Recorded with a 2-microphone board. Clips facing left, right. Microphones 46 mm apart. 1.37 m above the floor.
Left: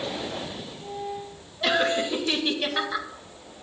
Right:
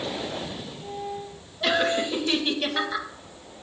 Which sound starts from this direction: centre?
Laughter, at 1.6 s.